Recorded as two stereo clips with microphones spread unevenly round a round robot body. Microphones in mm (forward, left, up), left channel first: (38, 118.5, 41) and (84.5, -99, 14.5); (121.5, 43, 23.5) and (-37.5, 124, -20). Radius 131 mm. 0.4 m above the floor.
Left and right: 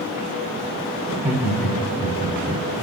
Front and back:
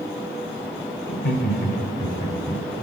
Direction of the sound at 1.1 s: 30° right.